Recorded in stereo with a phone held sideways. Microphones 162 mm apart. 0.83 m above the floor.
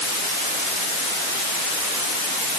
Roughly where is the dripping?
No dripping in this recording.